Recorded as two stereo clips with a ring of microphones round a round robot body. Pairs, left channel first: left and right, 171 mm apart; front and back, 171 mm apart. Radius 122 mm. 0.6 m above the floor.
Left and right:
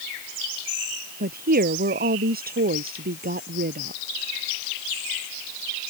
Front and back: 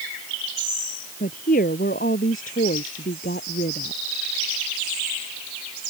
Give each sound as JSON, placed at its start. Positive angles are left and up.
{"t": 1.2, "sound": "a woman speaking", "azimuth_deg": -60}